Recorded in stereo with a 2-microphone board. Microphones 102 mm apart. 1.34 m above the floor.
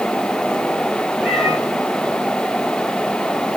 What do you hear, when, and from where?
1.2 s a cat meowing: 5° left (ahead or behind), 5 m